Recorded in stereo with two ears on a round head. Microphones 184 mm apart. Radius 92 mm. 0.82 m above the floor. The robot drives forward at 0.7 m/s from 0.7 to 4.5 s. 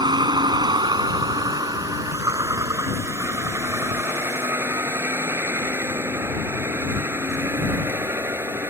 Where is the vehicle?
25° right (ahead or behind); by 8.7 s 15° right (ahead or behind).